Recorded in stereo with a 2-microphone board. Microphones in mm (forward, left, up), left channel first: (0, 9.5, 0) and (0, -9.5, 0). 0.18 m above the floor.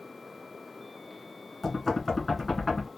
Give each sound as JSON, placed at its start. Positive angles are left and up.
{"t": 1.6, "sound": "knocking", "side_deg": 10, "distance_m": 1.6}